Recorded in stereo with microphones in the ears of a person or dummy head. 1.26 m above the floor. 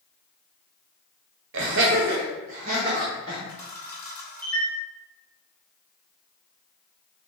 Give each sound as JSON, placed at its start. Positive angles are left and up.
{"t": 1.5, "sound": "laughter", "side_deg": -70, "distance_m": 0.9}
{"t": 3.5, "sound": "a camera shutter", "side_deg": 15, "distance_m": 2.0}